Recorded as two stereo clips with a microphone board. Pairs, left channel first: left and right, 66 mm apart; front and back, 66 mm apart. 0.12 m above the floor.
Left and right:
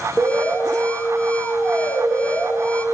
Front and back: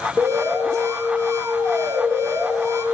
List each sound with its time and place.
0.2 s an alarm: 155° left, 3.5 m